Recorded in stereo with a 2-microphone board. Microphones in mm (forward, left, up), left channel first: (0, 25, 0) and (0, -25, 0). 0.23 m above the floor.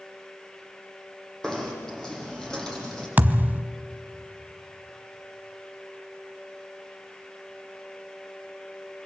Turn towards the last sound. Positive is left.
turn(degrees=-35)  # may be behind; listen again after turning